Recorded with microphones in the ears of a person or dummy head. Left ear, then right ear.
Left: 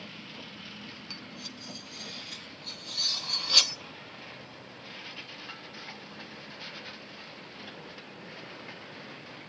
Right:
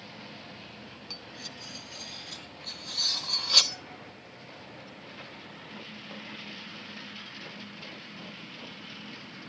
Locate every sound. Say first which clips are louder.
1.1 s cutlery clinking: right 3 dB; centre (ahead or behind), 0.9 m